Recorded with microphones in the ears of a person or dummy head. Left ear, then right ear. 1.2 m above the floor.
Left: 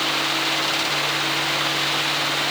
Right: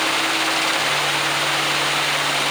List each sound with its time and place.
Only background noise.